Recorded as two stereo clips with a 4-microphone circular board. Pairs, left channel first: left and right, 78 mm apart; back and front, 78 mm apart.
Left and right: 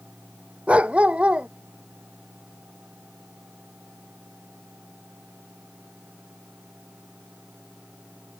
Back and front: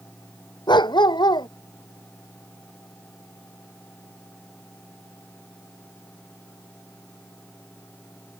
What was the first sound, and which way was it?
A dog barking, 165° right.